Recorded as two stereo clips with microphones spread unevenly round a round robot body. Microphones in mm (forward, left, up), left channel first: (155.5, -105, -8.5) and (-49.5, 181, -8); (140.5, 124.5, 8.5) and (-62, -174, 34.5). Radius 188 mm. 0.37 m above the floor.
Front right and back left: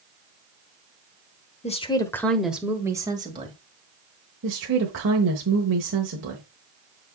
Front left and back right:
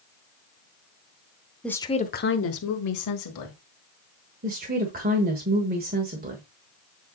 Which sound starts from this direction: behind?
A woman speaking, at 4.4 s.